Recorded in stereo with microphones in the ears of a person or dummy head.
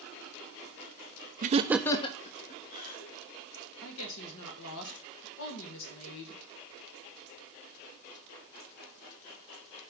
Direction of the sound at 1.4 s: 35° right (ahead or behind).